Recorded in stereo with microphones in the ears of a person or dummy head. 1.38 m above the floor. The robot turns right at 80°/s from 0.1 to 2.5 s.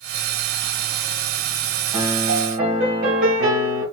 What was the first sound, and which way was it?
A piano, 145° right.